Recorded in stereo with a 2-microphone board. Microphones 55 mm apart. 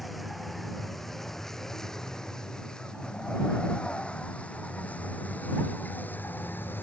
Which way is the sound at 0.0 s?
Centre (ahead or behind).